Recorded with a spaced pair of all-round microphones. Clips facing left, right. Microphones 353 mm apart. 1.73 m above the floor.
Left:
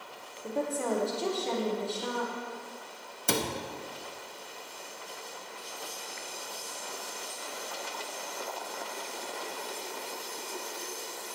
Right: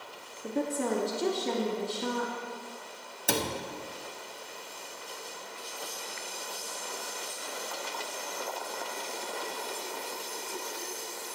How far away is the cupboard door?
About 0.6 m.